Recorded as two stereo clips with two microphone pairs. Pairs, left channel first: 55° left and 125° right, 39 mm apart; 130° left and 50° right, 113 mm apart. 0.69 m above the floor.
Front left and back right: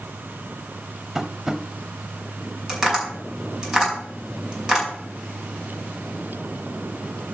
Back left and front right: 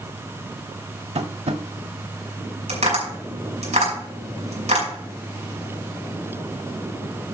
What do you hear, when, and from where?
1.1 s tapping: 50° right, 0.8 m
2.7 s tapping: 55° right, 4.5 m